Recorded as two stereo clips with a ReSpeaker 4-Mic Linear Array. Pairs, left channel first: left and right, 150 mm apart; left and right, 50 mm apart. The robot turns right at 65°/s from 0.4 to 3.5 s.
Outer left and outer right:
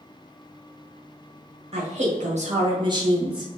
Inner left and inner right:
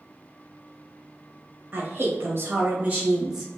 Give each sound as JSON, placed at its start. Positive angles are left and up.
{"t": 1.7, "sound": "a woman speaking", "azimuth_deg": -115, "distance_m": 1.1}